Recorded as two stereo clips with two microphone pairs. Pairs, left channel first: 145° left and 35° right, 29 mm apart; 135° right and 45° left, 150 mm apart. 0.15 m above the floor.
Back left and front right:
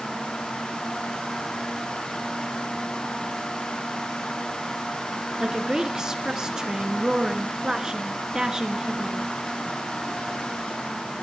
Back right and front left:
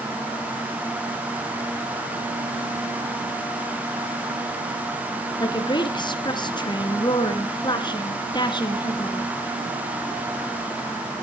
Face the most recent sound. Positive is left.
turn(degrees=-90)